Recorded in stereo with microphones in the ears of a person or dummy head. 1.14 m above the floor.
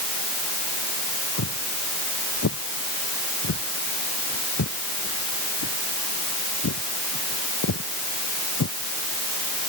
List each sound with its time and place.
1.4 s footsteps: 85° left; by 8.7 s 80° left